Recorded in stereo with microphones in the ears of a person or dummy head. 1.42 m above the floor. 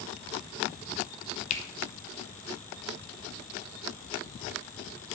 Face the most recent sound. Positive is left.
turn(degrees=40)  # may be behind; listen again after turning